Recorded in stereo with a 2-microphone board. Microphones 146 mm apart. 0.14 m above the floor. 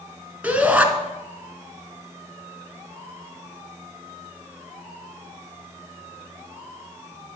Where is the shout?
10° right (ahead or behind), 1.9 m.